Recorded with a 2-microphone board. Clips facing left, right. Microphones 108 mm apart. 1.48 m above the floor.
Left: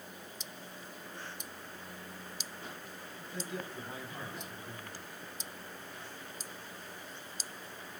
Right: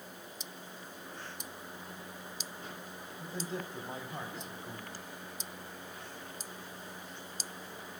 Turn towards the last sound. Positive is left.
turn(degrees=-35)  # may be behind; listen again after turning